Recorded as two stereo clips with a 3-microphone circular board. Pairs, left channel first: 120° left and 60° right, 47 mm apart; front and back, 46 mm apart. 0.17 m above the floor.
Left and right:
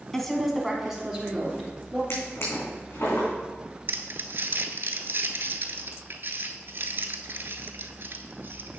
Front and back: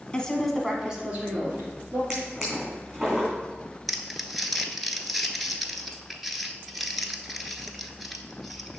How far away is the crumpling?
About 0.7 m.